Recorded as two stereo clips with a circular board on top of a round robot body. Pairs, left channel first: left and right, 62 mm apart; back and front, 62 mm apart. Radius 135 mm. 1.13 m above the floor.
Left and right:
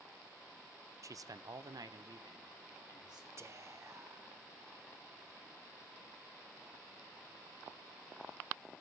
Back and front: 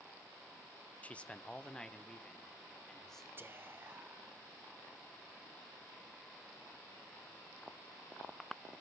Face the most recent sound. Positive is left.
turn(degrees=-50)